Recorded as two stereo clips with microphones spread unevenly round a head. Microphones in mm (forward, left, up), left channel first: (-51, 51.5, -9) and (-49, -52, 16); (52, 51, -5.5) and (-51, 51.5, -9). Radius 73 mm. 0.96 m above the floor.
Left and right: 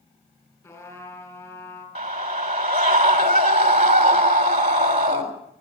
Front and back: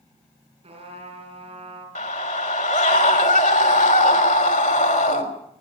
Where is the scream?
35° right, 3.5 m.